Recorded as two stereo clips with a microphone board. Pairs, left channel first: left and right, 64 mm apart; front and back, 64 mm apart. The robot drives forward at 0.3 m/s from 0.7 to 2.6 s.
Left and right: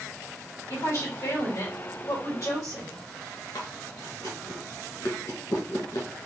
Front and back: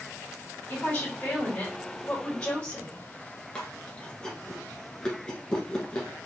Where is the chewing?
75° left, 1.3 m.